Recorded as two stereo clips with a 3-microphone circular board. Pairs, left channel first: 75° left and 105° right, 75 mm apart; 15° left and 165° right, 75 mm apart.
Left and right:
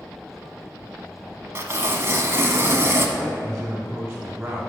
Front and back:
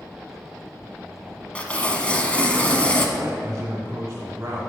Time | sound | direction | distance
1.6 | tearing paper | 55° right | 0.7 m
3.2 | a man speaking | 170° right | 1.1 m